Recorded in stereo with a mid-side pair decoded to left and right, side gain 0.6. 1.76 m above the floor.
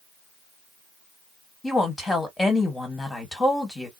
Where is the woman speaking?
15° left, 1.7 m.